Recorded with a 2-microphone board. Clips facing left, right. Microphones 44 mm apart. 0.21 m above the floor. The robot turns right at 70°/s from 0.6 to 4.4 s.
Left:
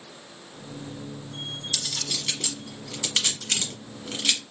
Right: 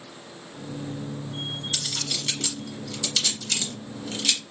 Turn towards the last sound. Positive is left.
turn(degrees=15)  # may be behind; listen again after turning